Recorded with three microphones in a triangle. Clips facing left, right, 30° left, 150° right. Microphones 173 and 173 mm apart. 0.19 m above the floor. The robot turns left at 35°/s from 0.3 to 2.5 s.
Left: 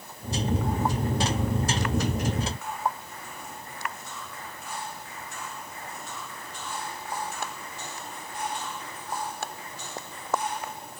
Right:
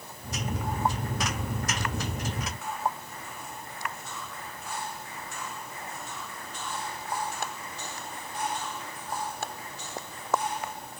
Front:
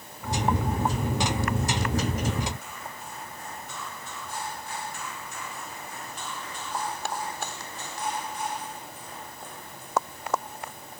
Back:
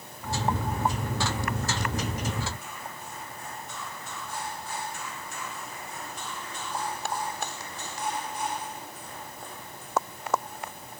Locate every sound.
Only background noise.